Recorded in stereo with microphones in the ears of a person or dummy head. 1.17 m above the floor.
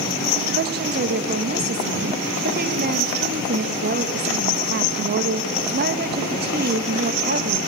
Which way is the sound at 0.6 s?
50° right (ahead or behind).